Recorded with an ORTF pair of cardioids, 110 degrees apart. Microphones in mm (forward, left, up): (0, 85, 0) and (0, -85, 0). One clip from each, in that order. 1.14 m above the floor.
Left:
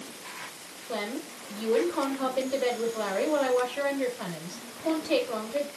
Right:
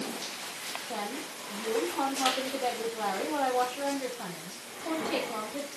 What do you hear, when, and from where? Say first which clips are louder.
0.9 s a woman speaking: left 7 dB; 65° left, 4 m